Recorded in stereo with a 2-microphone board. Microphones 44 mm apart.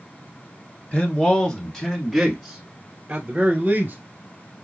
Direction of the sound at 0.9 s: 30° left (ahead or behind).